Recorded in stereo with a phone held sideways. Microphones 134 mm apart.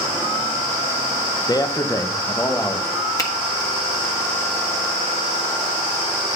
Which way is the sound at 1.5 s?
30° left (ahead or behind).